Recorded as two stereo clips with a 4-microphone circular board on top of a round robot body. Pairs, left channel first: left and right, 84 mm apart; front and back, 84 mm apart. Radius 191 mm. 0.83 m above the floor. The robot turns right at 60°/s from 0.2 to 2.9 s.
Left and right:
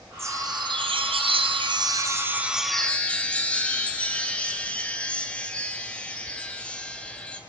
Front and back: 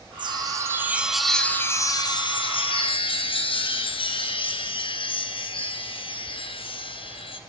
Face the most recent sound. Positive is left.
turn(degrees=15)